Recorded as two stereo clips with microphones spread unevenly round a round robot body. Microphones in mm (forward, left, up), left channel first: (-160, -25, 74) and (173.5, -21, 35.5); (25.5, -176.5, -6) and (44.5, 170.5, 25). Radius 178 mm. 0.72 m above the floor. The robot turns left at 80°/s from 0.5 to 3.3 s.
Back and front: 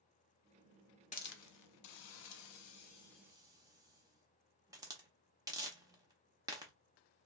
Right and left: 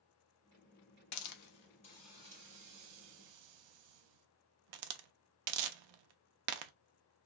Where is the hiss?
105° right, 0.5 m; by 6.7 s 80° left, 0.5 m.